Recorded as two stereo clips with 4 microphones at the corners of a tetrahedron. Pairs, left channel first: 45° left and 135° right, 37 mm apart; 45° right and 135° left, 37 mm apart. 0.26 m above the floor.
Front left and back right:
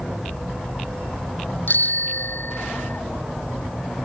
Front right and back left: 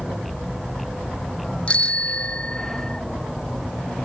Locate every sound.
1.7 s a bicycle bell: 15° left; by 3.0 s 20° left